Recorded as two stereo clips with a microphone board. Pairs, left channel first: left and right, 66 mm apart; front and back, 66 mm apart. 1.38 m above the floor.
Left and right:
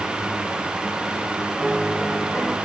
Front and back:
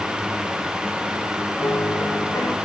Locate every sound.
1.6 s a piano: 10° left, 1.7 m